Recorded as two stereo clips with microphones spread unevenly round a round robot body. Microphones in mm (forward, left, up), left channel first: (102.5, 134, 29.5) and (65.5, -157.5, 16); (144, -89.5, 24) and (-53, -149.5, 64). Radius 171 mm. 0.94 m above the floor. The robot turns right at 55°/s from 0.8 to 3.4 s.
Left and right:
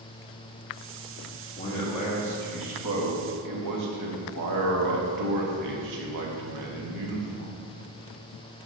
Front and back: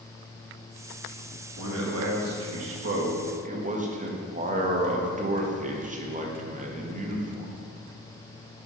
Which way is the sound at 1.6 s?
155° left.